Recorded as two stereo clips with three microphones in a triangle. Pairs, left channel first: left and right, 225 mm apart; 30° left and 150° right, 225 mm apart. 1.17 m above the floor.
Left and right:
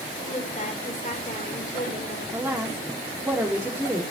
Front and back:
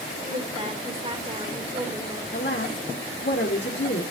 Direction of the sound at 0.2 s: 145° left.